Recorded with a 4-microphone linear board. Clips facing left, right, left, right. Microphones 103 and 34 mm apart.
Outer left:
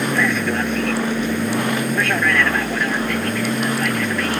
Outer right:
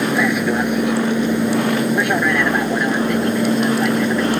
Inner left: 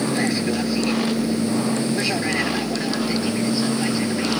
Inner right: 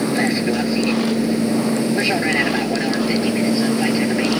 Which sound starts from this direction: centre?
An aircraft, at 0.0 s.